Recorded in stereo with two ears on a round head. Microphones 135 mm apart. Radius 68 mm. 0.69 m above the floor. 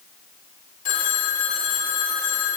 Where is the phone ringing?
55° left (ahead or behind), 1.6 m.